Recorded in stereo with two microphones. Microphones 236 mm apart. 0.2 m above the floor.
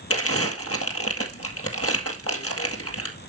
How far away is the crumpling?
About 1.7 m.